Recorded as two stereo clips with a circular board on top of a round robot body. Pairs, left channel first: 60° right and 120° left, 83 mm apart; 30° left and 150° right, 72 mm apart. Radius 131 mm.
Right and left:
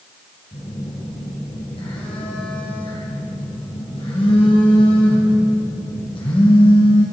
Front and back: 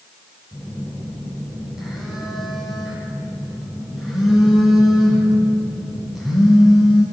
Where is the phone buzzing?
65° right, 3.5 m.